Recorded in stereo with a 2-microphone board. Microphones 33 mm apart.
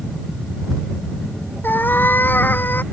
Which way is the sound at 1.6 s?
80° left.